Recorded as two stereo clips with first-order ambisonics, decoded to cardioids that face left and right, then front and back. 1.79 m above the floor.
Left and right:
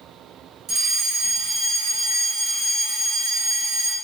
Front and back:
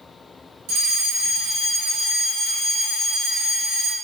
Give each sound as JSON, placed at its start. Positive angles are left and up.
{"t": 0.7, "sound": "a fire alarm", "azimuth_deg": -150, "distance_m": 1.1}